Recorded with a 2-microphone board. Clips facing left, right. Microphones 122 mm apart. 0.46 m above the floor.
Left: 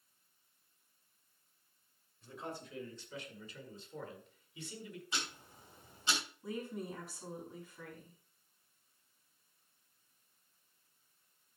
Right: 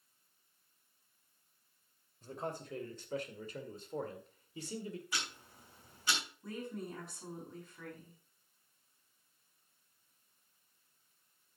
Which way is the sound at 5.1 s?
25° left (ahead or behind).